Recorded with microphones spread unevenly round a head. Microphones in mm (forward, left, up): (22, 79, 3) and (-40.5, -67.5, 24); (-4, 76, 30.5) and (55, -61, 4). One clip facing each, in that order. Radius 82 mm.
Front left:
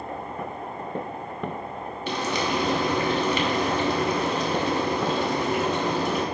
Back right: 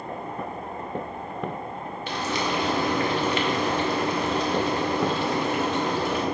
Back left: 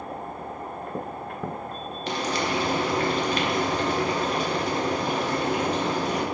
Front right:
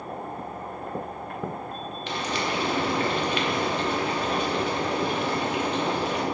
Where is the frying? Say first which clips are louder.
Front left 1 dB, back left 2 dB; 65° left, 1.2 m.